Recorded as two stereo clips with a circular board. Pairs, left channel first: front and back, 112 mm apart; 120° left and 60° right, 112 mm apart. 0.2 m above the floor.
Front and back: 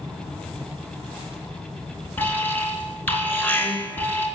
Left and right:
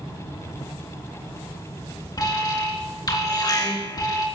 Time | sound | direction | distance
2.2 | an alarm | 70° left | 3 m